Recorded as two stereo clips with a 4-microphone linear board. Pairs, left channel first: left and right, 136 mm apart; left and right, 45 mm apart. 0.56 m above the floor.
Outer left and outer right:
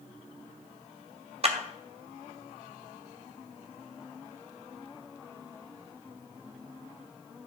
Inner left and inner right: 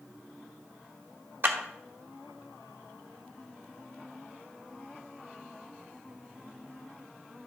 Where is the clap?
45° right (ahead or behind), 1.0 m.